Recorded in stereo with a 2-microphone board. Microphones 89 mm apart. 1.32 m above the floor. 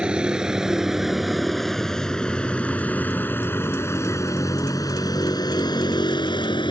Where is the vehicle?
15° right (ahead or behind); by 6.7 s 65° left (ahead or behind).